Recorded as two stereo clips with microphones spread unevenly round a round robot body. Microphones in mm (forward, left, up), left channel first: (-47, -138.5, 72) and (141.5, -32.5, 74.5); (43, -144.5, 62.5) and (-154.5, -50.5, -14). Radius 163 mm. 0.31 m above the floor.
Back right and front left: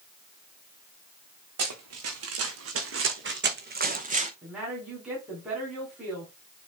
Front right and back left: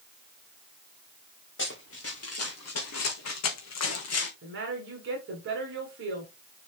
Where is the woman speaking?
115° left, 2.5 m.